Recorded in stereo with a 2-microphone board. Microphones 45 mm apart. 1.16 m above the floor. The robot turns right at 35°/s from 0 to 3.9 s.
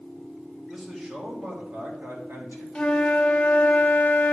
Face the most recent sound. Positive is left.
turn(degrees=70)